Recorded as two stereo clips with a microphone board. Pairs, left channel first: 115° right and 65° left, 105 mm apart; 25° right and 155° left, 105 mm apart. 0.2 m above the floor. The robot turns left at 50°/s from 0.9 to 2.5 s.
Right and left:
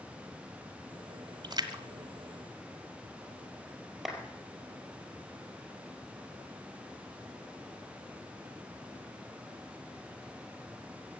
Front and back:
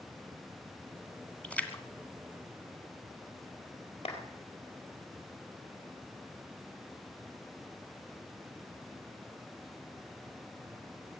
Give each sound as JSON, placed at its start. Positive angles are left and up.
{"t": 1.4, "sound": "a splash", "azimuth_deg": 55, "distance_m": 1.5}
{"t": 4.0, "sound": "a clap", "azimuth_deg": -20, "distance_m": 4.0}